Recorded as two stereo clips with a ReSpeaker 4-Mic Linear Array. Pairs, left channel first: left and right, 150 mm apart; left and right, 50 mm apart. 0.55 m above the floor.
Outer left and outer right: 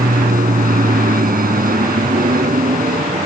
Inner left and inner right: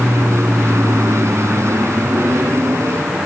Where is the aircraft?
75° right (ahead or behind).